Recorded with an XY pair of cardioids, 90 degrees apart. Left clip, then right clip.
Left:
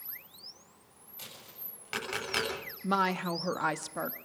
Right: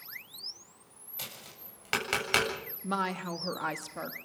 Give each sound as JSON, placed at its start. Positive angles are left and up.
{"t": 1.2, "sound": "tapping", "azimuth_deg": -60, "distance_m": 7.5}
{"t": 2.8, "sound": "a woman speaking", "azimuth_deg": 30, "distance_m": 1.4}